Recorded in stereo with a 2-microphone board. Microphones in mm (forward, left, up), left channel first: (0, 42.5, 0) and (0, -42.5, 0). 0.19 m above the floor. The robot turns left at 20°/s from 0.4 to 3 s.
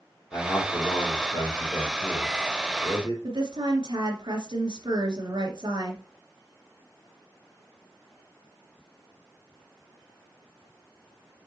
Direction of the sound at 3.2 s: 65° right (ahead or behind).